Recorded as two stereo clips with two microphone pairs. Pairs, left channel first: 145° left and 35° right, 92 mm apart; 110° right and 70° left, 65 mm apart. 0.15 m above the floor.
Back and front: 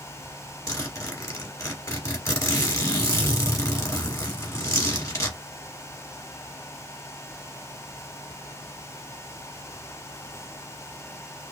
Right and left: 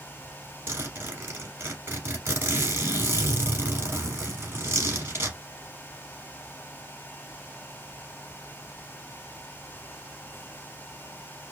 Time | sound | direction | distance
0.7 | a zipper | 105° left | 1.2 m